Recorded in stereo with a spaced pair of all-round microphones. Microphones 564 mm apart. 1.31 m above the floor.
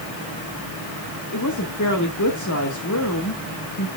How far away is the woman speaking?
About 1.5 m.